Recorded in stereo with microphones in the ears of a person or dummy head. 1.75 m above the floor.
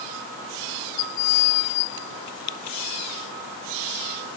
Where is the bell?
No bell in this recording.